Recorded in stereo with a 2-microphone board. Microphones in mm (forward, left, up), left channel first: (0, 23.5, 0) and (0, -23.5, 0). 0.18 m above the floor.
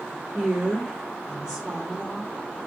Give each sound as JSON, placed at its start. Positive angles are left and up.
{"t": 0.3, "sound": "a woman speaking", "side_deg": -10, "distance_m": 4.5}